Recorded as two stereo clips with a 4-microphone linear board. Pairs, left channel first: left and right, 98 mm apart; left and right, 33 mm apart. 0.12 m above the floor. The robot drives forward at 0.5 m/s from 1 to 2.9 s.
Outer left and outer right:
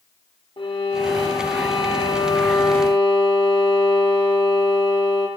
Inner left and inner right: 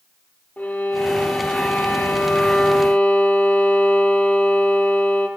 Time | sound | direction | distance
0.6 | a violin | 60° left (ahead or behind) | 3 m